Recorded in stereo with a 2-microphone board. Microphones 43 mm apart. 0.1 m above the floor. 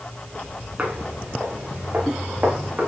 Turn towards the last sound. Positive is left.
turn(degrees=-45)  # may be behind; listen again after turning